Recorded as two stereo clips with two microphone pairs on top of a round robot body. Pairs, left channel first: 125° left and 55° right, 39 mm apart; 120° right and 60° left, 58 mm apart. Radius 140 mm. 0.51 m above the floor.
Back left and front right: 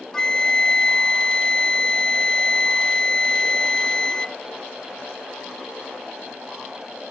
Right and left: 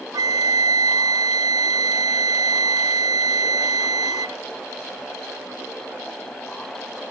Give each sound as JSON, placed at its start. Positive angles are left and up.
{"t": 0.1, "sound": "a flute", "azimuth_deg": 55}